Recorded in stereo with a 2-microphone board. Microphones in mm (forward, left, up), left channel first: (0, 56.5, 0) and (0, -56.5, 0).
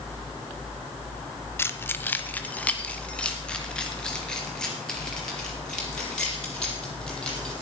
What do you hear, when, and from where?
1.6 s keys jangling: 20° left (ahead or behind), 0.7 m; by 7.5 s 5° left (ahead or behind), 5.5 m